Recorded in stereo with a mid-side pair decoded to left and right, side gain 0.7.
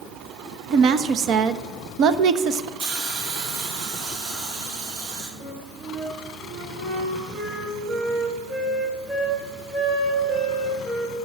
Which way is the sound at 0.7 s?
50° right.